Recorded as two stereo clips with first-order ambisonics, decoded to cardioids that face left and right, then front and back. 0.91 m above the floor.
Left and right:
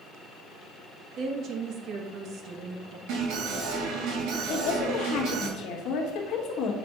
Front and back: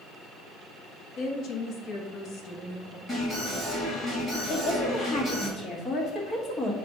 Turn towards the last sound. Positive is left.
turn(degrees=60)